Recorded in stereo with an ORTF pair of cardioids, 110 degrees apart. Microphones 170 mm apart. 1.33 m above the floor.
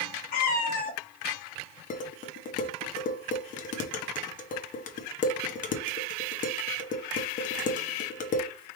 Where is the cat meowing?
60° left, 1.5 m.